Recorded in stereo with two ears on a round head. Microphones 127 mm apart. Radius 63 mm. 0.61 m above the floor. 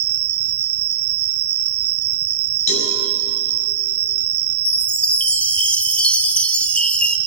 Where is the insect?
80° right, 1.0 m.